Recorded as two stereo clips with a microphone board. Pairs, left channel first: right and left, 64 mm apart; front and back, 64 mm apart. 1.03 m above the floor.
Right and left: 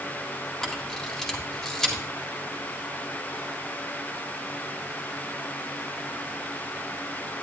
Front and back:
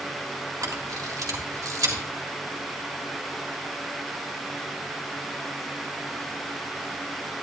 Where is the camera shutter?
170° right, 1.8 m.